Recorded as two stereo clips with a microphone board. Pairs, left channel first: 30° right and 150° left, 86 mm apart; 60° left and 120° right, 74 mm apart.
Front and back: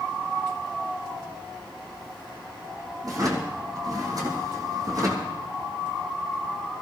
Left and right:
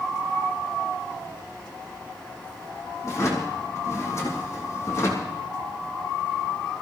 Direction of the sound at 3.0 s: 110° left.